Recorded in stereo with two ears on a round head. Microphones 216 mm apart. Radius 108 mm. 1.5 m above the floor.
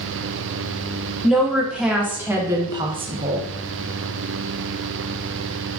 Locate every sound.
1.2 s a woman speaking: centre (ahead or behind), 2 m; by 3.5 s 40° right (ahead or behind), 0.7 m